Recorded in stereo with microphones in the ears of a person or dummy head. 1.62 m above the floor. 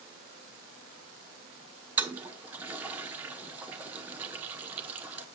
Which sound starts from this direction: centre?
A toilet flushing, at 2.0 s.